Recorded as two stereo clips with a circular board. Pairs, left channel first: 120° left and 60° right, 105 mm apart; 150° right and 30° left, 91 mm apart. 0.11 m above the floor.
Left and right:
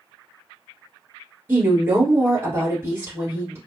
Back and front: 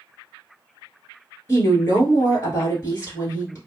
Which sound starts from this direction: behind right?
A woman speaking, at 1.5 s.